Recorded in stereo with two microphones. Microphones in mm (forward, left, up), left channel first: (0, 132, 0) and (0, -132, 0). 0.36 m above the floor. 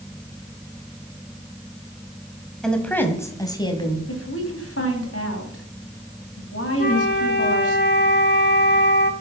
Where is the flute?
40° left (ahead or behind), 1.1 m.